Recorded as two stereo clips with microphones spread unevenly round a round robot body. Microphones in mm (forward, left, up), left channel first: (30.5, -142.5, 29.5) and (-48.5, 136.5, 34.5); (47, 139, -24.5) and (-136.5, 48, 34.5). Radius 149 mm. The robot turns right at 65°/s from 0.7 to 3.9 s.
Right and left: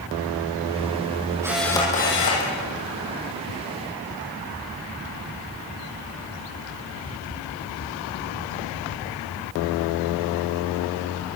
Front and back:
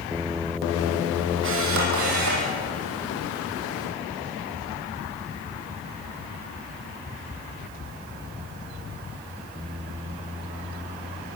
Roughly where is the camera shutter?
Behind.